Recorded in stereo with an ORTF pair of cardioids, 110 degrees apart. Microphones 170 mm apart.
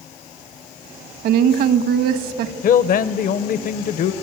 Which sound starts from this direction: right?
A woman speaking, at 1.2 s.